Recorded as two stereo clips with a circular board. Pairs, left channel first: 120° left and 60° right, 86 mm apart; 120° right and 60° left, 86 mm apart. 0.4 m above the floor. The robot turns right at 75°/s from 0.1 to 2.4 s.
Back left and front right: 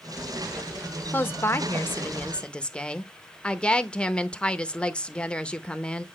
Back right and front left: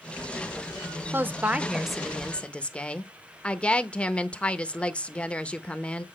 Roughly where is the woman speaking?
Left.